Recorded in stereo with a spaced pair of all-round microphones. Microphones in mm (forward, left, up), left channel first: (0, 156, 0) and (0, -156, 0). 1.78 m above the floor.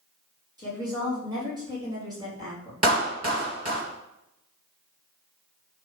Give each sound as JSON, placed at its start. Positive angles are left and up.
{"t": 0.6, "sound": "a woman speaking", "side_deg": -15, "distance_m": 4.0}
{"t": 2.8, "sound": "a clap", "side_deg": -50, "distance_m": 2.5}